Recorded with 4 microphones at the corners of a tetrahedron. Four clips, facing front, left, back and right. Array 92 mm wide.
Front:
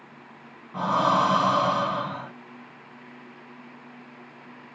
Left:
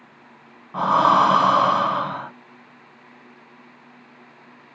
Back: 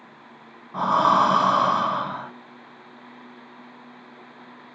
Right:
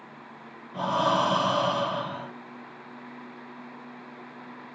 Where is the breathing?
110° left, 1.0 m.